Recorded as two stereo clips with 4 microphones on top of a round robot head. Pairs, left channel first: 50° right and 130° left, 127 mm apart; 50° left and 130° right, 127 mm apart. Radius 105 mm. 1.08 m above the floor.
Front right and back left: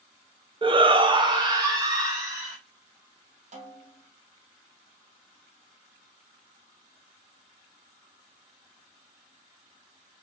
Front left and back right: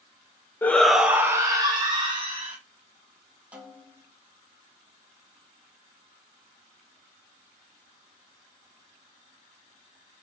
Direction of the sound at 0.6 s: 120° left.